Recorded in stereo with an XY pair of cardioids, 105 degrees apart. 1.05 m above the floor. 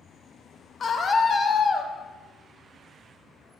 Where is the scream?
40° left, 0.8 m.